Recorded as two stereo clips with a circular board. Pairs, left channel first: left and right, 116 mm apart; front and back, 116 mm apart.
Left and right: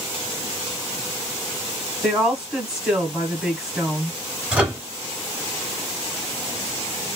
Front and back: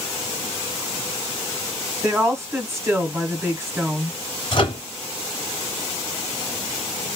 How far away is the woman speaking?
About 1.2 m.